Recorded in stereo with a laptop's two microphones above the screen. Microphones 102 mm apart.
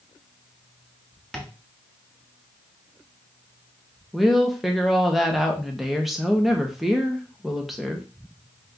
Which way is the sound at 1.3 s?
5° left (ahead or behind).